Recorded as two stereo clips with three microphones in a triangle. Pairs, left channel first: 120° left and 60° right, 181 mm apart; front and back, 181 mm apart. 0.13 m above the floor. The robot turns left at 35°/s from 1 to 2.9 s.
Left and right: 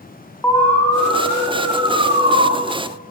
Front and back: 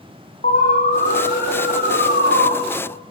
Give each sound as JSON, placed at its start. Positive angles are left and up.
{"t": 0.4, "sound": "an alarm", "azimuth_deg": 40, "distance_m": 8.0}